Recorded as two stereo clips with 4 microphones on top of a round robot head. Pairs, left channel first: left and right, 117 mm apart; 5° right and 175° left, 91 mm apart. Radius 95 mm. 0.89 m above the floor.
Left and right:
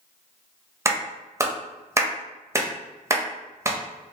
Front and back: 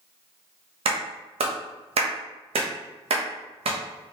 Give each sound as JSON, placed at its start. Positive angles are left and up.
{"t": 0.8, "sound": "a clap", "azimuth_deg": -155, "distance_m": 0.7}